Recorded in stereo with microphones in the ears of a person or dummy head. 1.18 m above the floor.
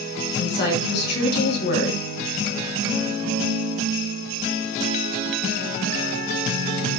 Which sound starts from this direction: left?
A woman speaking, at 0.4 s.